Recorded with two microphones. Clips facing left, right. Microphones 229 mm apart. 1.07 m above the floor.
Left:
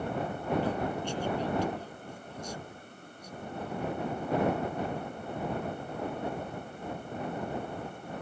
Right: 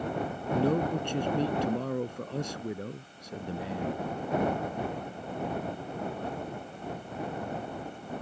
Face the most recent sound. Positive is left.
turn(degrees=-80)